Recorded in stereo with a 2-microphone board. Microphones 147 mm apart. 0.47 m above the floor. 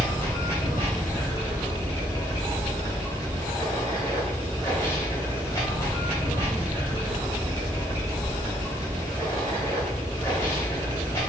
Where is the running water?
20° left (ahead or behind), 1.9 m.